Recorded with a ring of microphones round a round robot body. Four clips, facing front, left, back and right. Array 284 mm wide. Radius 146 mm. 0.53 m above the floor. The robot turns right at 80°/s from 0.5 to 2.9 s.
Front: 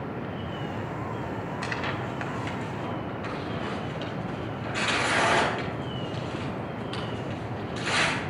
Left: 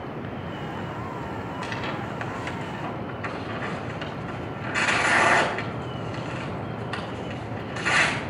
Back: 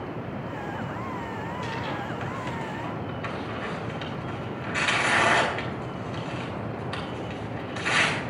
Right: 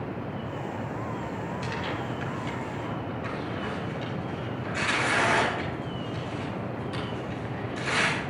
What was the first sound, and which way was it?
Tearing paper, 20° left.